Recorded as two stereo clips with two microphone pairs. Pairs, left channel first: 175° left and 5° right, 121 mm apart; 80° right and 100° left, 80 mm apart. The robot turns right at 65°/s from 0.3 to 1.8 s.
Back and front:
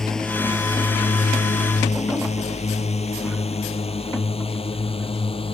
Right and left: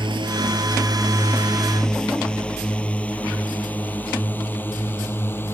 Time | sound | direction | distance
0.0 | a drone | 90° left | ?